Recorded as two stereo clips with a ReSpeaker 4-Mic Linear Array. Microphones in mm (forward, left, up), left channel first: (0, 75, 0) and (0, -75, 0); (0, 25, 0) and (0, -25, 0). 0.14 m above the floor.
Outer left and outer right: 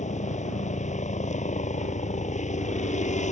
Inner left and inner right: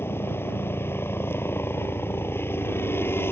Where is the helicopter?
50° left (ahead or behind).